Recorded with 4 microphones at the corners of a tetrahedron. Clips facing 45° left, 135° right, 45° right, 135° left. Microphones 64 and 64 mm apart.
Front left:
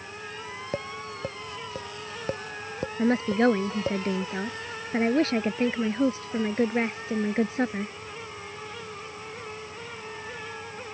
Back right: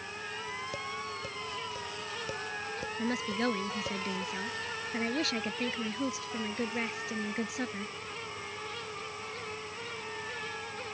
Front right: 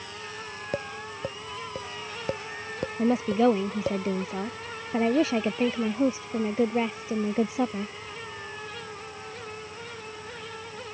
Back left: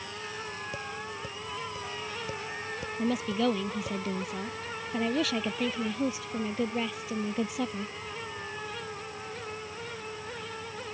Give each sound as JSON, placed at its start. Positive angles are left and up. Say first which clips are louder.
{"t": 0.7, "sound": "tapping", "louder": "front left 4 dB, front right 4 dB", "azimuth_deg": -5}
{"t": 3.0, "sound": "a woman speaking", "louder": "front left 10 dB, front right 6 dB", "azimuth_deg": 5}